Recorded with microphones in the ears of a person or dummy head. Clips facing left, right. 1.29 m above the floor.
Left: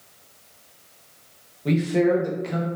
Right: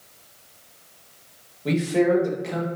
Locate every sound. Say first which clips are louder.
1.6 s a man speaking: even; 5° right (ahead or behind), 0.6 m